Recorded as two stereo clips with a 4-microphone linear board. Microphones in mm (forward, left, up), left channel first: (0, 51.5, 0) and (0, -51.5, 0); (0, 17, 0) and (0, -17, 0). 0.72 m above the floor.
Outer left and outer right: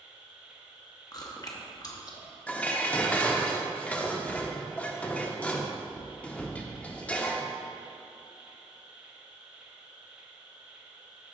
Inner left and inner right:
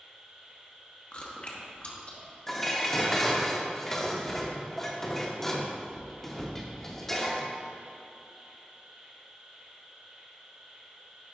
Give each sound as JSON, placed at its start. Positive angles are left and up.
{"t": 0.0, "sound": "an insect", "side_deg": -10, "distance_m": 2.5}
{"t": 1.1, "sound": "chewing", "side_deg": 35, "distance_m": 1.0}
{"t": 2.5, "sound": "dishes clattering", "side_deg": 15, "distance_m": 0.7}